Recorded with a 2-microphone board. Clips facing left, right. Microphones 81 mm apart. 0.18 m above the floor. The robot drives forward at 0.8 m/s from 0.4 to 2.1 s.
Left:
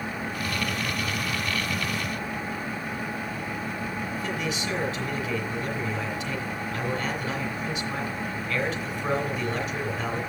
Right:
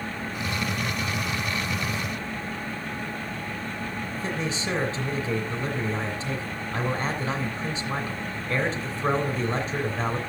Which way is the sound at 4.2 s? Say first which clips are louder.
Right 1 dB; 30° right (ahead or behind).